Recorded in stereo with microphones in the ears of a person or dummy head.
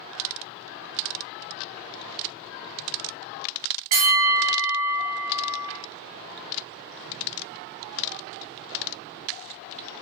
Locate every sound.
3.9 s a bell: 30° right (ahead or behind), 0.8 m